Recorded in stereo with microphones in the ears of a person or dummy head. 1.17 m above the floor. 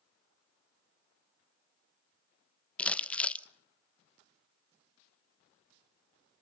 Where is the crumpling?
5° left (ahead or behind), 1.0 m.